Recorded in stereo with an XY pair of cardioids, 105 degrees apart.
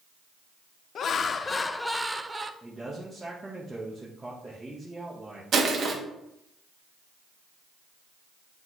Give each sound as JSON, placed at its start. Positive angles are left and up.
{"t": 0.9, "sound": "laughter", "azimuth_deg": 55, "distance_m": 0.7}
{"t": 2.6, "sound": "a man speaking", "azimuth_deg": -15, "distance_m": 1.5}
{"t": 5.5, "sound": "crushing", "azimuth_deg": -50, "distance_m": 1.6}